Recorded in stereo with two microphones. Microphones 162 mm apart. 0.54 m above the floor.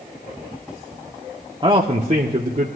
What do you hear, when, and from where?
1.6 s a man speaking: 30° right (ahead or behind), 0.7 m; by 2.7 s 55° right (ahead or behind), 1.1 m